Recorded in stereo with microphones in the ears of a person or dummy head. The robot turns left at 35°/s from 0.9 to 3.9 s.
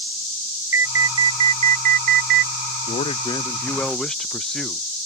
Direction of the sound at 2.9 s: 40° left.